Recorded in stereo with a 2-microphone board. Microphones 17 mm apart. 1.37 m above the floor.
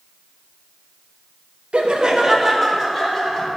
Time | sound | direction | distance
1.7 | laughter | 65° right (ahead or behind) | 0.6 m